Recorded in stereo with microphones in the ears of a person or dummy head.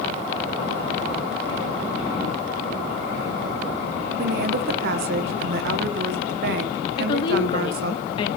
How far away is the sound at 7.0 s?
About 1.2 m.